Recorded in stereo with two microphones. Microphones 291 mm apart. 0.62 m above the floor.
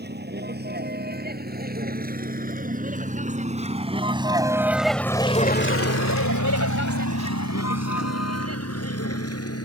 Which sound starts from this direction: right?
A vehicle, at 0.0 s.